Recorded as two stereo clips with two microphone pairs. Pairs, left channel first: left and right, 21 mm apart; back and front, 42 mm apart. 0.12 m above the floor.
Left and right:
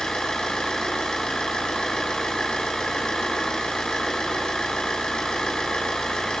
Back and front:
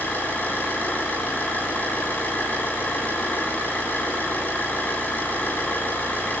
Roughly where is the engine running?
Behind left.